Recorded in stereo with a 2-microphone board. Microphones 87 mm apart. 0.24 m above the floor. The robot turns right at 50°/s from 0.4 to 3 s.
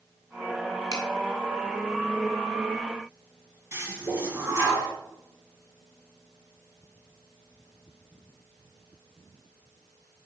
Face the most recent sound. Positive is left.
turn(degrees=-30)  # may be behind; listen again after turning